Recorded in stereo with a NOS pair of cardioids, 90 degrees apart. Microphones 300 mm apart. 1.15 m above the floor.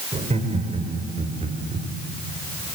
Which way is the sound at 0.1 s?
20° right.